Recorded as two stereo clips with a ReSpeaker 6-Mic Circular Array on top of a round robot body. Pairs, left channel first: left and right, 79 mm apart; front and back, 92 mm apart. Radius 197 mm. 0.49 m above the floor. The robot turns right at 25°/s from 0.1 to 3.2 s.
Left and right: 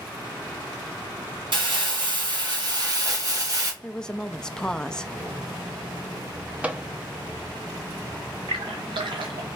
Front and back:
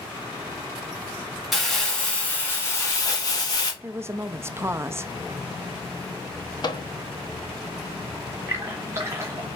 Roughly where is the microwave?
Ahead.